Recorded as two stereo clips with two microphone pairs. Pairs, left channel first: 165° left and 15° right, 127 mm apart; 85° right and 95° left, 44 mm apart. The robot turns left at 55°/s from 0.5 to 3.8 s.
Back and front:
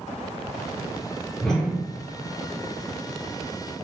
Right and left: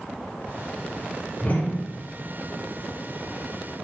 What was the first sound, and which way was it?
A whoosh, 105° right.